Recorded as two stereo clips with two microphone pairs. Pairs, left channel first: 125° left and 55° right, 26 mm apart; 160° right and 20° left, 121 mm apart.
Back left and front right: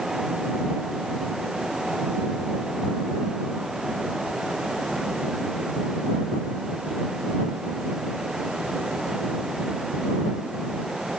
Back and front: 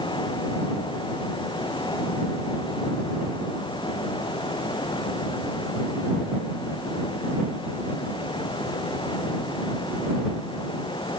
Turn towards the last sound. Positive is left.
No sound to turn to.